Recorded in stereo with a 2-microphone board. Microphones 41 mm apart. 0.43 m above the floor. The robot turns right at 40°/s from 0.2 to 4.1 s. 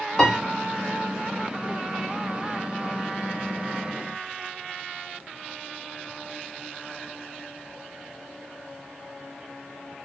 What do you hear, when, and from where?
0.2 s a piano: 10° left (ahead or behind), 0.9 m; by 0.4 s 15° left (ahead or behind), 0.9 m